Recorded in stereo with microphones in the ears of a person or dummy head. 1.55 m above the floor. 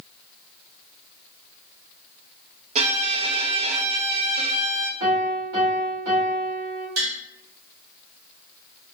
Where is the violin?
35° right (ahead or behind), 0.6 m.